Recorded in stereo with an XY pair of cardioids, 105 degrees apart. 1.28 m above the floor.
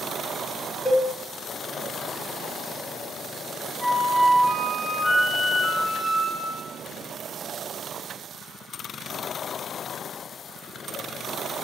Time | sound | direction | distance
0.8 | a cowbell | 10° left | 0.9 m
3.8 | a flute | 5° right | 2.5 m